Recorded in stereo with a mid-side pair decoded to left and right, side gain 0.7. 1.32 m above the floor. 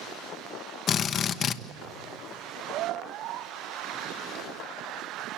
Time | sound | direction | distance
0.9 | a drill | 45° left | 1.0 m